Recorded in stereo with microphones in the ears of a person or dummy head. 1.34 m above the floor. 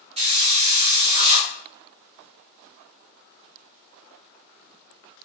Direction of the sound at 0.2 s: 30° right (ahead or behind).